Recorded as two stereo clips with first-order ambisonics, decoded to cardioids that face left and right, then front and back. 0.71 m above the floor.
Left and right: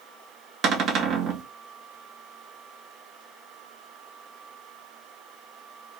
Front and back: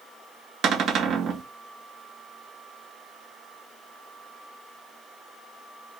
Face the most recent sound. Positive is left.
turn(degrees=-135)